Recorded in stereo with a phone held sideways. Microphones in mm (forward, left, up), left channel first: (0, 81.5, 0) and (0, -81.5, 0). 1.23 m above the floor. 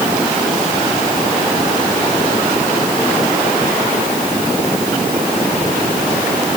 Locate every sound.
Only background noise.